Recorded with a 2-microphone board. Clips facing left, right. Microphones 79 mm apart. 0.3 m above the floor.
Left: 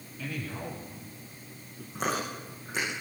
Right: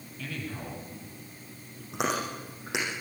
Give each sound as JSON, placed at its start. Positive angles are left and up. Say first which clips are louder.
{"t": 0.2, "sound": "a man speaking", "louder": "left 1 dB", "side_deg": 5, "distance_m": 8.0}
{"t": 1.9, "sound": "chewing", "louder": "right 1 dB", "side_deg": -80, "distance_m": 10.0}